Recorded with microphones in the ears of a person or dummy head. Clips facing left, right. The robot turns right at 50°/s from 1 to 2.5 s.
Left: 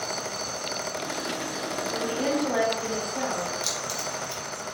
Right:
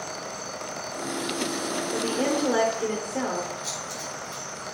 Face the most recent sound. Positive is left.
turn(degrees=75)  # may be behind; listen again after turning